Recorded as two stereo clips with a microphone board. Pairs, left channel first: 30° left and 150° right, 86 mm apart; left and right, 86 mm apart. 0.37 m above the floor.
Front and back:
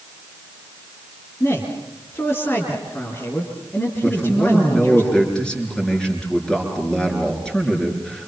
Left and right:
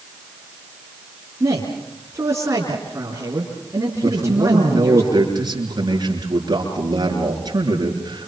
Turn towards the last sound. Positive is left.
turn(degrees=-50)